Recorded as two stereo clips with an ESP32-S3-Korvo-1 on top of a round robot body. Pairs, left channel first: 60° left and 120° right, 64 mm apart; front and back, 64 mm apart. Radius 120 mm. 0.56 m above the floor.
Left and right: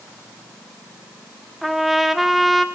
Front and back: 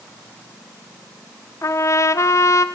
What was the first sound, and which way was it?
A trumpet, 30° right.